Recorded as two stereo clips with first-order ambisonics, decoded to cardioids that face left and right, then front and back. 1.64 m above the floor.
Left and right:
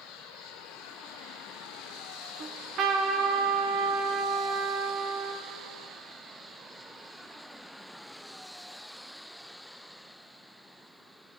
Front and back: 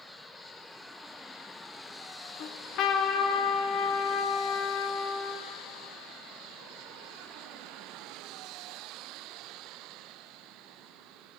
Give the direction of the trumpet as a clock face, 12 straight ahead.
1 o'clock.